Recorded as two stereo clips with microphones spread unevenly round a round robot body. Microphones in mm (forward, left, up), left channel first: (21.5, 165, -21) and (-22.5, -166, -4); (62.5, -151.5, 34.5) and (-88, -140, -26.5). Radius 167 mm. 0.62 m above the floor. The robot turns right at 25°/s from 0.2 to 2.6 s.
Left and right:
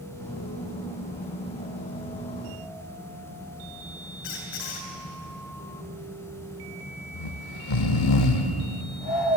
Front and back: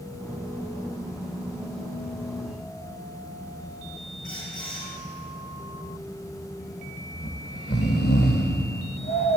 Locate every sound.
4.2 s a squeak: 65° left, 4.5 m
7.1 s snoring: 60° left, 0.9 m